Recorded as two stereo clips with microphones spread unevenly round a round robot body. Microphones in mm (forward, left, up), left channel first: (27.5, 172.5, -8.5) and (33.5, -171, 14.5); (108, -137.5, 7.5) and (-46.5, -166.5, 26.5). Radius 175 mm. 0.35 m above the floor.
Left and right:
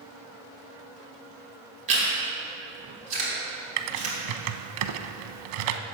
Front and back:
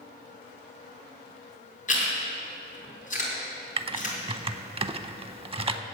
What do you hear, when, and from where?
1.9 s chewing: 20° right, 3.5 m
3.8 s typing on a keyboard: 110° right, 0.7 m